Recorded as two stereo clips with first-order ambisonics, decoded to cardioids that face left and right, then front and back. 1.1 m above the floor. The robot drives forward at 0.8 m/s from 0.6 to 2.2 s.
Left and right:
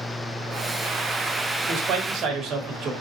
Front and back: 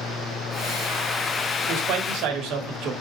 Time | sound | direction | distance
1.7 | a man speaking | 140° right | 2.5 m